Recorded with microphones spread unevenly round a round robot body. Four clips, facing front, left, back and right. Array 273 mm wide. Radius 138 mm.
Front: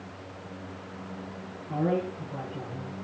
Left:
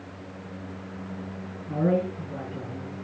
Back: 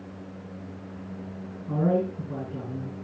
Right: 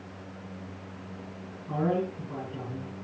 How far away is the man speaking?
About 8 m.